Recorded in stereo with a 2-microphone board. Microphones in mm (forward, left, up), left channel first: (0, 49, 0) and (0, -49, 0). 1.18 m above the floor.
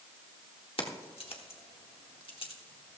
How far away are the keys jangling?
About 1.8 m.